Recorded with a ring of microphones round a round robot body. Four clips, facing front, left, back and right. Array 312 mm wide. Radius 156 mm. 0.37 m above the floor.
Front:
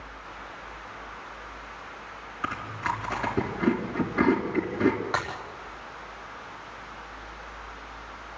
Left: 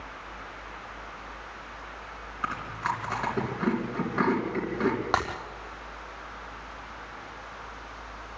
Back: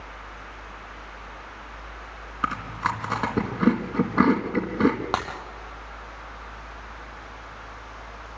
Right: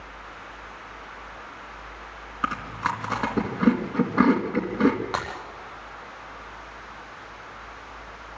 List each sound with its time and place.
2.4 s chewing: 150° right, 3 m
5.1 s breaking glass: 145° left, 6.5 m